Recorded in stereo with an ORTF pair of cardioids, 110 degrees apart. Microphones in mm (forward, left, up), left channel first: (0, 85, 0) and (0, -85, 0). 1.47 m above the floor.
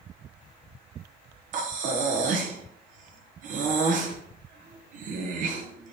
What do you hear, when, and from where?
1.5 s breathing: 50° right, 1.0 m